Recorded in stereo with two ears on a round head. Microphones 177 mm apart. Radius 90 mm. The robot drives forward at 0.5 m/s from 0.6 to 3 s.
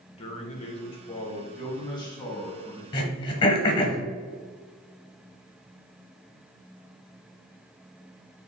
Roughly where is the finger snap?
I don't hear a finger snap.